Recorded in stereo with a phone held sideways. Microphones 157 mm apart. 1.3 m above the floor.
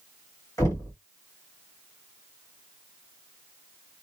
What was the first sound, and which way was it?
Knocking, 20° left (ahead or behind).